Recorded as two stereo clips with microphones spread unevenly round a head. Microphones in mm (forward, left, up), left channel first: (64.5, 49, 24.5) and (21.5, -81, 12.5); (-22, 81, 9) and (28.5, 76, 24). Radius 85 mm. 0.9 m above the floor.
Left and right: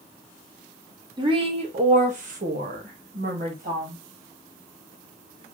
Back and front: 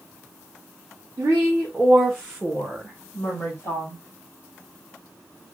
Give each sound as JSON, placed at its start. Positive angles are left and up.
{"t": 1.2, "sound": "a woman speaking", "azimuth_deg": -60, "distance_m": 0.9}